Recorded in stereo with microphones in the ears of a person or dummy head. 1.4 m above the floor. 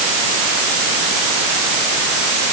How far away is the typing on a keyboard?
No typing on a keyboard in this recording.